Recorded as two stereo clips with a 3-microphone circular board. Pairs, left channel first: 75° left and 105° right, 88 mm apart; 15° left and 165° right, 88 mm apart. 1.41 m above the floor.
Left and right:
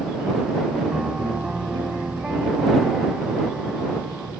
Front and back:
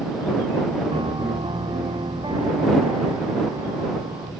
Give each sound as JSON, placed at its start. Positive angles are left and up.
{"t": 0.9, "sound": "a piano", "azimuth_deg": 175}